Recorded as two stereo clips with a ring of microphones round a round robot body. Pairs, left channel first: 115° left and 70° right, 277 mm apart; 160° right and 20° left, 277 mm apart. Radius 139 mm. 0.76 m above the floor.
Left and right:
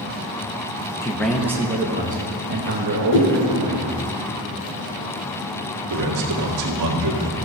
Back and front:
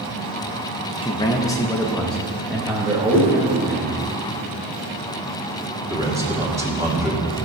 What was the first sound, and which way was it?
A man speaking, 170° left.